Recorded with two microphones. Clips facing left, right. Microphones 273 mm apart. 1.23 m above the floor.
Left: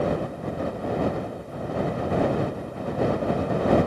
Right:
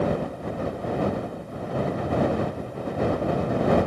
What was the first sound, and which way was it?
Only background noise.